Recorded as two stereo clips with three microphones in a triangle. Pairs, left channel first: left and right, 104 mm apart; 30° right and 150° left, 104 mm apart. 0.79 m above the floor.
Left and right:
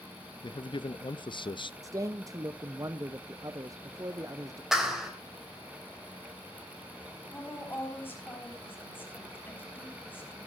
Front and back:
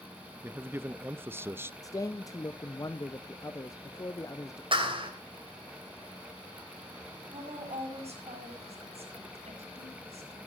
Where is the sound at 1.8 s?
60° right, 0.6 m.